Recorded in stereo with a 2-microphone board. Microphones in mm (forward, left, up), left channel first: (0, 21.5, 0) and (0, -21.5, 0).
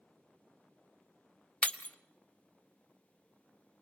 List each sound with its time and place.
1.6 s breaking glass: 30° left (ahead or behind), 0.8 m